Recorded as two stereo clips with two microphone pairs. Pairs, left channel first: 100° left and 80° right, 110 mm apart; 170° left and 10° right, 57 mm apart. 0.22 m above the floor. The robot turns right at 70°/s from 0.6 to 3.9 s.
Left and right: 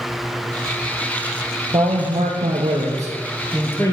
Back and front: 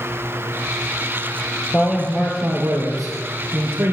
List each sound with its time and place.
1.7 s a man speaking: 110° right, 4 m; by 3.9 s 40° left, 4 m